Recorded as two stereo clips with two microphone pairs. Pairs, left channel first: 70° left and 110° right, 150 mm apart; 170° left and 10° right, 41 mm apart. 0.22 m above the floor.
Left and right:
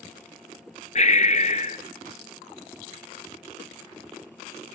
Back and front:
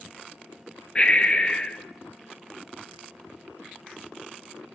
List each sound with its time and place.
0.9 s breathing: 110° left, 1.2 m